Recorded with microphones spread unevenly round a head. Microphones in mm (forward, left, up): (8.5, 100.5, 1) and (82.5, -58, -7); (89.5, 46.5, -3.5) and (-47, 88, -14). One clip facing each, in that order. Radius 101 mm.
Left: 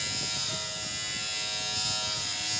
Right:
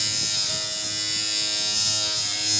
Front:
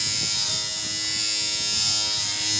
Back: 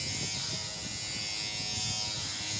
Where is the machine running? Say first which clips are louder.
Right 2 dB, front 3 dB; 25° right, 2.5 m.